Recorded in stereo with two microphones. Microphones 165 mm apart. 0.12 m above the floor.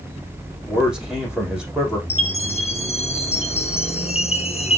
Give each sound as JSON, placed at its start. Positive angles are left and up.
{"t": 0.7, "sound": "a man speaking", "side_deg": 0, "distance_m": 5.0}
{"t": 2.1, "sound": "a chime", "side_deg": 40, "distance_m": 1.1}